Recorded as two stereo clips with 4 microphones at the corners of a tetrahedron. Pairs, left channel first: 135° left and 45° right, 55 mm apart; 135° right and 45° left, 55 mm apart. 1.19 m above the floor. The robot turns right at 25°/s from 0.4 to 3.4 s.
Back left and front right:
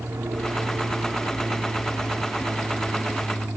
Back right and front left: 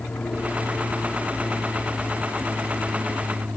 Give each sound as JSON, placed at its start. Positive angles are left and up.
{"t": 0.0, "sound": "an aircraft", "azimuth_deg": -75}